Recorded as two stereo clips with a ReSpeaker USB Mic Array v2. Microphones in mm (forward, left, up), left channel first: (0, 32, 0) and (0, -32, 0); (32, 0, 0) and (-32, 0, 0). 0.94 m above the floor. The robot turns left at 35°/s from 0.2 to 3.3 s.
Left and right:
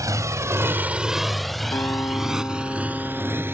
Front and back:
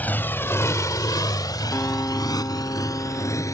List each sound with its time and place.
0.0 s a motorcycle: 65° right; by 3.5 s 35° right
1.7 s a guitar: 60° left; by 3.5 s 5° left